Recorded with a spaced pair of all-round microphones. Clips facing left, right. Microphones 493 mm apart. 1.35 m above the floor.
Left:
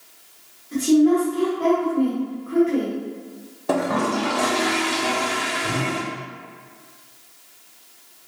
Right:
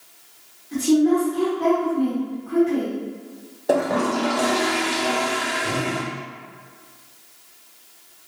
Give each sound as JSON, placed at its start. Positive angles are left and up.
{"t": 0.7, "sound": "a woman speaking", "side_deg": -10, "distance_m": 1.3}
{"t": 3.7, "sound": "a toilet flushing", "side_deg": 25, "distance_m": 0.7}